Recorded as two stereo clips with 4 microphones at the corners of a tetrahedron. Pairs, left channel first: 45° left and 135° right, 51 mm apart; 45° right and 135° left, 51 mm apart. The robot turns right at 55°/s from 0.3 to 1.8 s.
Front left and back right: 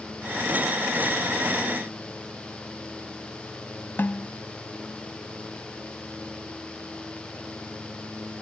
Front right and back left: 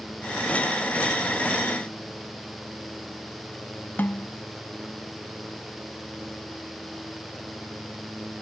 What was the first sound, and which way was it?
A snare drum, 5° left.